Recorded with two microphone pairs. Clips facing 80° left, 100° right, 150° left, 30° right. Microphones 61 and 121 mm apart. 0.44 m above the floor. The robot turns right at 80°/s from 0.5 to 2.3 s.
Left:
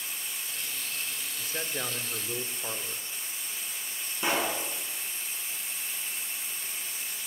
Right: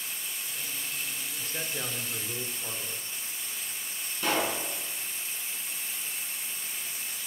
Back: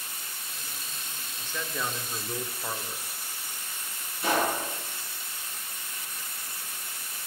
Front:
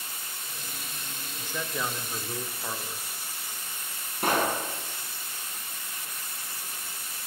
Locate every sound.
1.4 s a man speaking: 15° left, 1.0 m; by 3.0 s 90° left, 1.0 m
4.2 s a pop: 5° left, 4.5 m